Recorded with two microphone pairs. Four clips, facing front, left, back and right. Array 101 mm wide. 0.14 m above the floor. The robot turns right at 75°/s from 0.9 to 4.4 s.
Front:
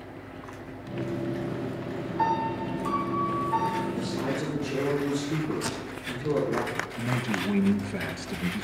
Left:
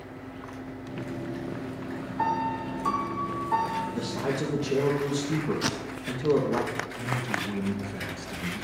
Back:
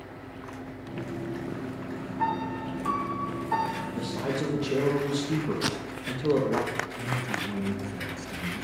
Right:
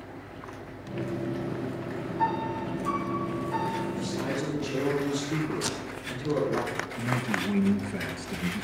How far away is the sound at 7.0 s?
About 1.8 m.